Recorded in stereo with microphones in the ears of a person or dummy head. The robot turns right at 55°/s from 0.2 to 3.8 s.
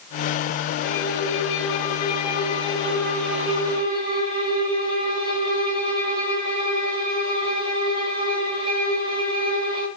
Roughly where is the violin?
Ahead left.